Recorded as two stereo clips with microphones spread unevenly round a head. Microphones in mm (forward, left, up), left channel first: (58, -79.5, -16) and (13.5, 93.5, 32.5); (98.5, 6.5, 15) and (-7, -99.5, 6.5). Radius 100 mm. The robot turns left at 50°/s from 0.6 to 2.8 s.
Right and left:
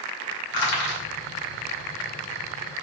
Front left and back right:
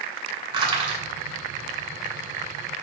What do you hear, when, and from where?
0.5 s crushing: 80° right, 2.5 m; by 1.0 s 100° right, 2.5 m